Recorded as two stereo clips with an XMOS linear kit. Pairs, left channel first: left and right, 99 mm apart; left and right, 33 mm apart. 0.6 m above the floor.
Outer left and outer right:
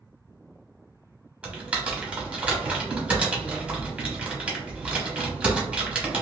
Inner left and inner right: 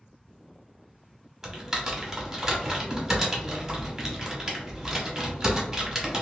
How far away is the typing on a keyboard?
About 1.0 m.